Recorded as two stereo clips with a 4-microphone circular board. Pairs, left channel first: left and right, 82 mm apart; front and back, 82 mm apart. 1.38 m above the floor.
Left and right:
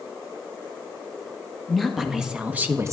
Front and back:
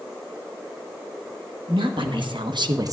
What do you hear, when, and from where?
1.7 s a woman speaking: straight behind, 1.9 m; by 2.9 s 140° right, 0.8 m